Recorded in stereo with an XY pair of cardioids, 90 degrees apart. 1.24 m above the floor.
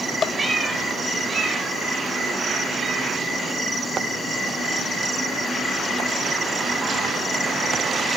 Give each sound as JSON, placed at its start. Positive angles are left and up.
{"t": 0.4, "sound": "a cat meowing", "azimuth_deg": -35, "distance_m": 3.0}